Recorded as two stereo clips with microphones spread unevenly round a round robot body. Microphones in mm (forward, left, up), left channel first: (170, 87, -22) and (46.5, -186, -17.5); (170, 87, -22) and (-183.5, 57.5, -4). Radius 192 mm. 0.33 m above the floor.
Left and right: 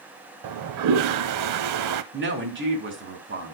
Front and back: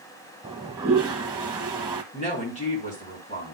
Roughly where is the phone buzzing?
No phone buzzing in this recording.